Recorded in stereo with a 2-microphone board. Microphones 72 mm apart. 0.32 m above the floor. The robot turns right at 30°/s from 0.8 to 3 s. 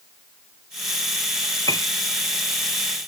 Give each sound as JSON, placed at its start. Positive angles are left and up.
{"t": 1.7, "sound": "a piano", "side_deg": 60}